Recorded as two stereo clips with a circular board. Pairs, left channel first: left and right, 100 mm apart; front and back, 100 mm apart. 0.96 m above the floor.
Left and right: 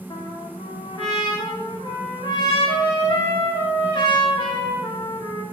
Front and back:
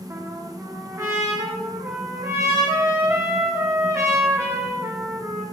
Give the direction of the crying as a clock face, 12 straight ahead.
No crying in this recording.